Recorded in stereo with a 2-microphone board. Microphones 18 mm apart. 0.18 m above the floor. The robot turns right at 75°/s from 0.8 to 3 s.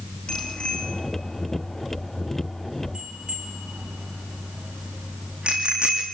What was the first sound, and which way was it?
A bicycle bell, 65° left (ahead or behind).